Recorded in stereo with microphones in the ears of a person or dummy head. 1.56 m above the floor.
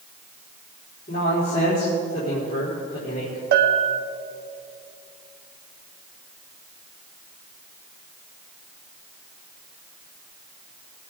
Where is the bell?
60° right (ahead or behind), 1.2 m.